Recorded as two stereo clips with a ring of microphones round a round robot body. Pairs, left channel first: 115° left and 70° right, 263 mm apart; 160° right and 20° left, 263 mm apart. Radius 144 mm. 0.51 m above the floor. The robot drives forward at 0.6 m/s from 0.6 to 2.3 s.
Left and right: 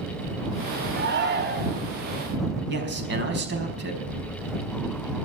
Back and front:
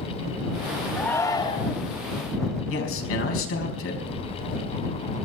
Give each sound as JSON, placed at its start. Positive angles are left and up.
{"t": 1.0, "sound": "a shout", "azimuth_deg": -75, "distance_m": 1.5}
{"t": 2.7, "sound": "a man speaking", "azimuth_deg": -120, "distance_m": 4.5}